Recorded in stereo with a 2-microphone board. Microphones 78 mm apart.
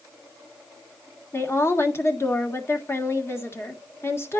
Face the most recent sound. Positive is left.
turn(degrees=35)  # may be behind; listen again after turning